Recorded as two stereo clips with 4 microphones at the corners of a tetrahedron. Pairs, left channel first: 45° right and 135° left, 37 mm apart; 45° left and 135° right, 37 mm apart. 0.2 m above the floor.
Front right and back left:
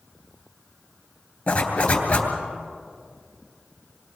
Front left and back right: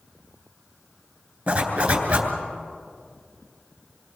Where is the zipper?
85° right, 3 m.